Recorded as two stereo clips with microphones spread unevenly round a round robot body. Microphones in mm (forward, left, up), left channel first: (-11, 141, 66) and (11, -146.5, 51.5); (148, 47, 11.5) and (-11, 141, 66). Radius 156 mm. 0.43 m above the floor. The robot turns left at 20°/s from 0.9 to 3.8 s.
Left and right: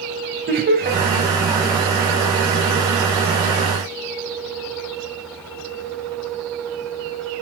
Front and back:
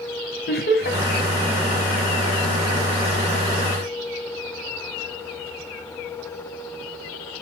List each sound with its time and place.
0.5 s laughter: 30° right, 2.5 m